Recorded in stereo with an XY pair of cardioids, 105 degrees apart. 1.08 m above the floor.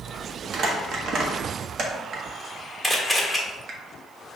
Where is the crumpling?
60° right, 0.9 m.